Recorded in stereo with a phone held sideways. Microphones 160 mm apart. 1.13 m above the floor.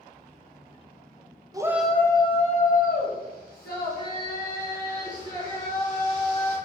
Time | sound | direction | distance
1.5 | a shout | 25° right (ahead or behind) | 0.6 m